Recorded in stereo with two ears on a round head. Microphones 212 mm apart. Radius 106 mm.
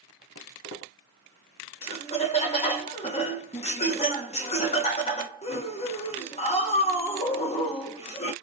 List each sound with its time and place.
0.3 s footsteps: 55° left (ahead or behind), 1.8 m
1.8 s laughter: 25° left (ahead or behind), 0.9 m